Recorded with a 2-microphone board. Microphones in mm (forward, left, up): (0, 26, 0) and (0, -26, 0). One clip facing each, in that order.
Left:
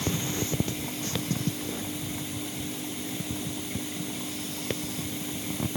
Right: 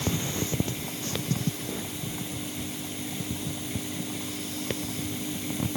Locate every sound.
Only background noise.